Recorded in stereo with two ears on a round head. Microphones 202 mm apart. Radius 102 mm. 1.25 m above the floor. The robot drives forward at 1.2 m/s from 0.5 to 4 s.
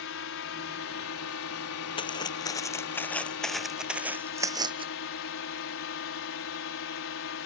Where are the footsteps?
25° left (ahead or behind); by 4.9 s 25° right (ahead or behind).